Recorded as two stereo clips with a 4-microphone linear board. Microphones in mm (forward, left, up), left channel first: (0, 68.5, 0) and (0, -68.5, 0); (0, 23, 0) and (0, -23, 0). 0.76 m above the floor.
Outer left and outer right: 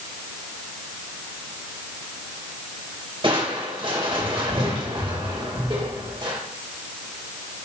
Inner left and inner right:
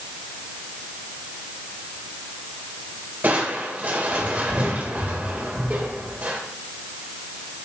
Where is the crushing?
40° right (ahead or behind), 2 m.